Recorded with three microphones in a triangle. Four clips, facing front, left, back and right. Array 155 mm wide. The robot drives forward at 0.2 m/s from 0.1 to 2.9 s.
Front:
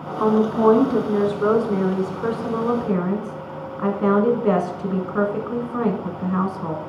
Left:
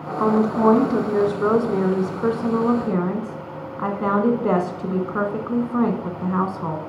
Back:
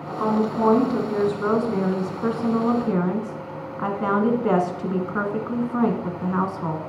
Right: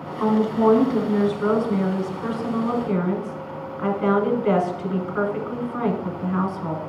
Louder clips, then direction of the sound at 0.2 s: Left 1 dB, front 4 dB; 55° left.